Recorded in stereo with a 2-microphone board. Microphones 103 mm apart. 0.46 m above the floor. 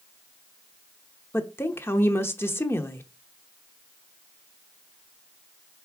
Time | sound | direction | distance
1.3 | a woman speaking | 25° left (ahead or behind) | 0.7 m